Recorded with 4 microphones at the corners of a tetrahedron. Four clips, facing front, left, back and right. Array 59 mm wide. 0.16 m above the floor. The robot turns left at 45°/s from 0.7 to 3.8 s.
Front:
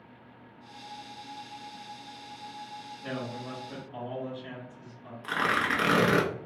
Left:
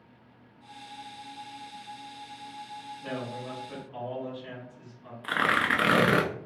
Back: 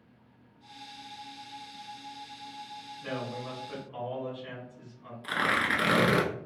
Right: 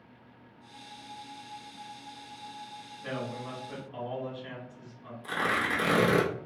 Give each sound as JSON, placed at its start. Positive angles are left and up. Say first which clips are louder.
{"t": 3.0, "sound": "a man speaking", "louder": "even, back 1 dB", "azimuth_deg": -165, "distance_m": 1.6}
{"t": 5.2, "sound": "tearing paper", "louder": "left 4 dB, even", "azimuth_deg": 80, "distance_m": 0.5}